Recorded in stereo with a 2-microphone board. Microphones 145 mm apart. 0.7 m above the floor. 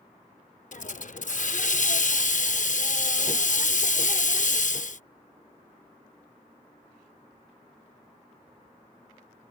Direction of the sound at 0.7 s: 60° left (ahead or behind).